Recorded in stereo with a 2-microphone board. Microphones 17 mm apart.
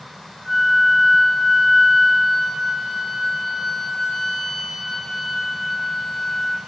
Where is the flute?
5° left (ahead or behind), 0.8 m.